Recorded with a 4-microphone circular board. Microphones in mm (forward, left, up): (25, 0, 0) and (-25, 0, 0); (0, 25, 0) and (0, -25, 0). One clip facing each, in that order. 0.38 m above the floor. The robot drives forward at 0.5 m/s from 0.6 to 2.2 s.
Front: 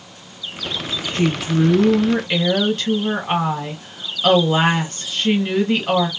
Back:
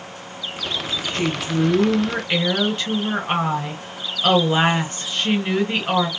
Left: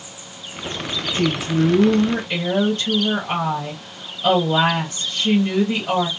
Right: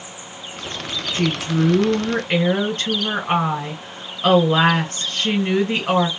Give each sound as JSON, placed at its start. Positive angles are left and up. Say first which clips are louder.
{"t": 1.1, "sound": "a woman speaking", "louder": "front 4 dB, left 1 dB", "azimuth_deg": -80, "distance_m": 2.0}